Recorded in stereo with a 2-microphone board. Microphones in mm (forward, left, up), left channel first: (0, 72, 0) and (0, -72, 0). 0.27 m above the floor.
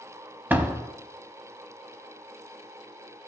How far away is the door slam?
About 1.0 m.